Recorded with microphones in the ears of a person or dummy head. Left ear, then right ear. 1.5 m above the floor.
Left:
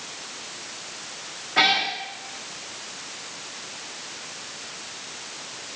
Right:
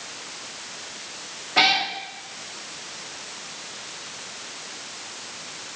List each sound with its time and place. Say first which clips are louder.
1.6 s a cat meowing: right 1 dB; 10° right (ahead or behind), 1.1 m